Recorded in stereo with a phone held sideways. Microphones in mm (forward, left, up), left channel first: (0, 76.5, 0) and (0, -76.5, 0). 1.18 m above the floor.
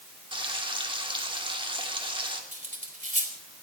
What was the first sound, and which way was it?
Frying, 30° right (ahead or behind).